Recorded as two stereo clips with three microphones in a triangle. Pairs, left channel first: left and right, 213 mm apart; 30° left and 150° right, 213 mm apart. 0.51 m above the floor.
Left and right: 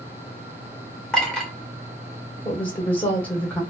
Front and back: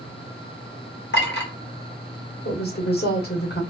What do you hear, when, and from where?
1.1 s a clink: 5° left, 1.2 m
2.5 s a woman speaking: 10° left, 1.3 m